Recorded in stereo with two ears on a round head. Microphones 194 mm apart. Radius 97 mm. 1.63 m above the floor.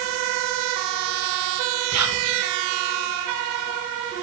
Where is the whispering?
85° right, 1.9 m.